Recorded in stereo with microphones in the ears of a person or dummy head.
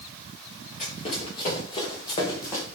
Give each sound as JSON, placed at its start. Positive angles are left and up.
{"t": 0.8, "sound": "running footsteps", "side_deg": 35, "distance_m": 7.0}